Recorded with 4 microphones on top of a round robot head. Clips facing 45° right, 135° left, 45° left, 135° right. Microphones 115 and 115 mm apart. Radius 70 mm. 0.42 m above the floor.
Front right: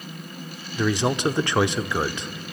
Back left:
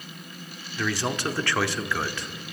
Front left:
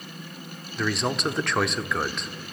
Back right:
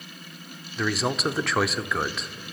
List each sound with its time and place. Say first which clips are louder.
0.8 s a man speaking: front right 5 dB, even; 50° right, 0.9 m